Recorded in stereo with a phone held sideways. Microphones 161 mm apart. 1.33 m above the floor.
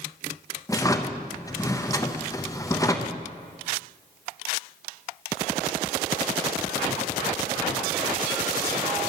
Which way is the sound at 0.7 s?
20° left (ahead or behind).